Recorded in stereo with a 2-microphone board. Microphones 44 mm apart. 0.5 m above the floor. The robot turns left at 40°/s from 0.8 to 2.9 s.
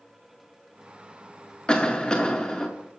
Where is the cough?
20° left (ahead or behind), 0.7 m; by 2.7 s 15° left (ahead or behind), 0.7 m.